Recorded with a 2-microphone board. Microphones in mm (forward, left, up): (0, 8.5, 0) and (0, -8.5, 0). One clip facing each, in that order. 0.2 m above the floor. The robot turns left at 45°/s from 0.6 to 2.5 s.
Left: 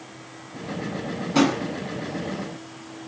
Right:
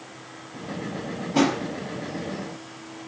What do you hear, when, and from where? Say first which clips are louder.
1.4 s a drawer: left 1 dB; 55° left (ahead or behind), 1.0 m